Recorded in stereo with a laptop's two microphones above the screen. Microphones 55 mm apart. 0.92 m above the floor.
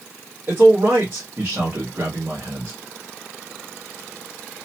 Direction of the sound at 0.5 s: 50° right (ahead or behind).